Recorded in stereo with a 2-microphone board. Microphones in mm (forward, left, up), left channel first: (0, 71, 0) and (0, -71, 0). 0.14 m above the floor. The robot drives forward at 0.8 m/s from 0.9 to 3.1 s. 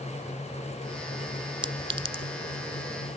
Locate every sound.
1.6 s a clink: 40° right (ahead or behind); by 2.2 s 45° right (ahead or behind)